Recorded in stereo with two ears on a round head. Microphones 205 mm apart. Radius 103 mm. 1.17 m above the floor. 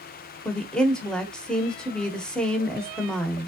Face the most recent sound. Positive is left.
turn(degrees=5)  # may be behind; listen again after turning